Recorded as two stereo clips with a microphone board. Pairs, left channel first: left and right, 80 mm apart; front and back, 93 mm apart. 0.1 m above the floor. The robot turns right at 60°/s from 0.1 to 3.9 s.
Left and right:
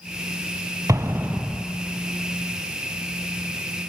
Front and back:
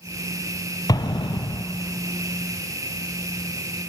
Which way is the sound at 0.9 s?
45° right.